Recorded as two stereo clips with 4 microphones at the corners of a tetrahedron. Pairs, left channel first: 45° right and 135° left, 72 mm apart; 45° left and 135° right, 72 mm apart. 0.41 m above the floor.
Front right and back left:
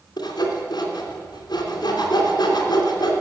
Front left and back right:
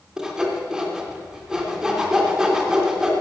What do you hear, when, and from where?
0.2 s sawing: 55° right, 2.5 m